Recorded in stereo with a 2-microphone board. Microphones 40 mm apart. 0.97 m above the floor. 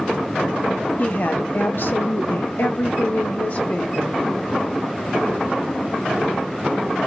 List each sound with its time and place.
1.0 s a woman speaking: 45° left (ahead or behind), 1.1 m; by 4.2 s 35° left (ahead or behind), 1.2 m